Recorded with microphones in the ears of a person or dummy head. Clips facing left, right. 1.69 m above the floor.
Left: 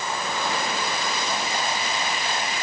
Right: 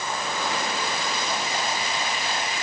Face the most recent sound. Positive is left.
No sound to turn to.